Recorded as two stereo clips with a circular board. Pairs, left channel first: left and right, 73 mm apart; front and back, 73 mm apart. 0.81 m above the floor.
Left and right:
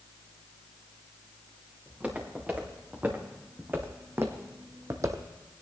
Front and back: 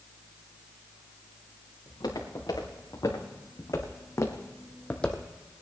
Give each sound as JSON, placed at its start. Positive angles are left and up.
{"t": 1.9, "sound": "footsteps", "azimuth_deg": -20, "distance_m": 3.5}